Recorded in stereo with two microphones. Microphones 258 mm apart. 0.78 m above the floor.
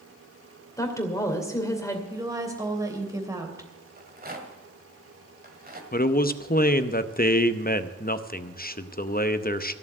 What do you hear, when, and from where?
0.8 s a woman speaking: 10° left (ahead or behind), 2.5 m
2.1 s a woman speaking: 15° right (ahead or behind), 3 m
4.0 s a rattle: 35° right (ahead or behind), 1.9 m
5.9 s a man speaking: 35° left (ahead or behind), 0.7 m